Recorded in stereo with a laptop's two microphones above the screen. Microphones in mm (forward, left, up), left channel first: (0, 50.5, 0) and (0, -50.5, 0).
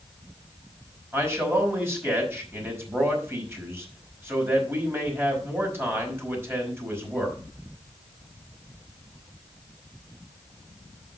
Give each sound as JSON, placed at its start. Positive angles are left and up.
{"t": 1.1, "sound": "a man speaking", "side_deg": -25, "distance_m": 5.0}